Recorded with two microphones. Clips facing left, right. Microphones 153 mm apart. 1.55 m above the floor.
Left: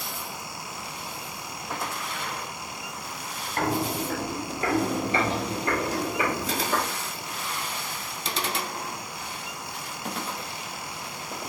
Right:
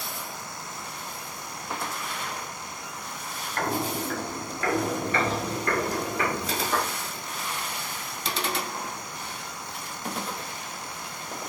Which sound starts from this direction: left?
Footsteps, at 3.6 s.